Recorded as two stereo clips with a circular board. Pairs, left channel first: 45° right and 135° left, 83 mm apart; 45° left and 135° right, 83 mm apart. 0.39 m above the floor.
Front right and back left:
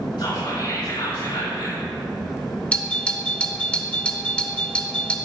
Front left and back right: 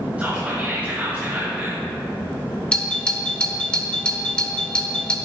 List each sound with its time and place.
0.2 s whispering: 60° right, 4 m
2.7 s a doorbell: 5° right, 2.0 m